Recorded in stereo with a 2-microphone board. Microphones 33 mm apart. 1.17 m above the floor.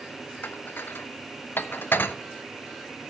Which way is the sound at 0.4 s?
75° left (ahead or behind).